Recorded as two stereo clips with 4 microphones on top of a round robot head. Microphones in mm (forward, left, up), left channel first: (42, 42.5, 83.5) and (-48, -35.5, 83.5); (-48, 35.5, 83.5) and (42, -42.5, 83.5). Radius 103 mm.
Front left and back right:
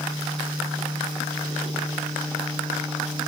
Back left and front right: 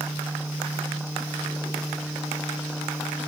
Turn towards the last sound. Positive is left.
No sound to turn to.